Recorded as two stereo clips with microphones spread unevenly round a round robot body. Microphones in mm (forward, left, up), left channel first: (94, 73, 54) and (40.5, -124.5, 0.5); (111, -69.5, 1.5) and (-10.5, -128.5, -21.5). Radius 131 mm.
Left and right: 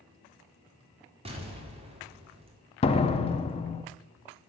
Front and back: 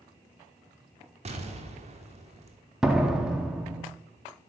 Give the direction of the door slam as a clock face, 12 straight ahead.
7 o'clock.